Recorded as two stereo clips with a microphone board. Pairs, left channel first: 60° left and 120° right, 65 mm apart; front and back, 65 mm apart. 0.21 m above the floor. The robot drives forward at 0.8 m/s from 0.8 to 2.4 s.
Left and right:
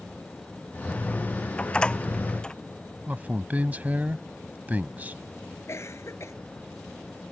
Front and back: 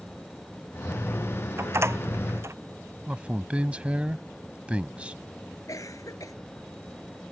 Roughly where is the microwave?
No microwave in this recording.